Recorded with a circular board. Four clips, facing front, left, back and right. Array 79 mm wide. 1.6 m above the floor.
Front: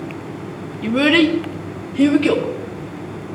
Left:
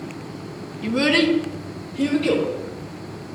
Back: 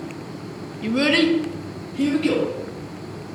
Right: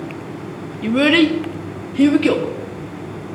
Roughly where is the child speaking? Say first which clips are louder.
Right 5 dB, front 4 dB; ahead right.